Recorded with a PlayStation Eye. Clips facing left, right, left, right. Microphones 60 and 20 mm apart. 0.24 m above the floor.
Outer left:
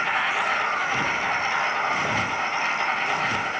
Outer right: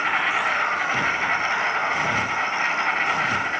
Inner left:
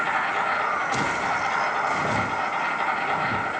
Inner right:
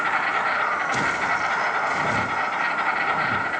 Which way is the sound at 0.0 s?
60° right (ahead or behind).